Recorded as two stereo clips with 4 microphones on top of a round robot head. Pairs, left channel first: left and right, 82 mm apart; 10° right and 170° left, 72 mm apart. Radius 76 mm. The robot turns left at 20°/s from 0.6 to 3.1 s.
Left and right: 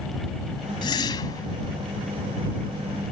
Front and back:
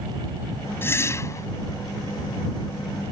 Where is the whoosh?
50° left; by 1.5 s 35° left.